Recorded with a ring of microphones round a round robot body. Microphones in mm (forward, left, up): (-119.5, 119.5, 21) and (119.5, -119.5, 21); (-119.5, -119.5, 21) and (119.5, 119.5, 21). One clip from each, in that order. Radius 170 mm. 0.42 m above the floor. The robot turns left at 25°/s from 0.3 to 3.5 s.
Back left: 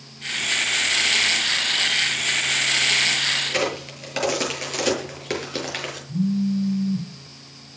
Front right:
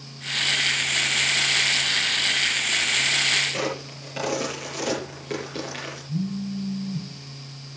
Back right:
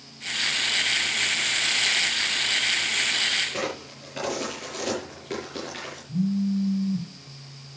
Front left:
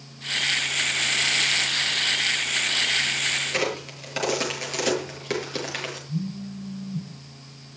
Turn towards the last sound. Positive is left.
turn(degrees=-70)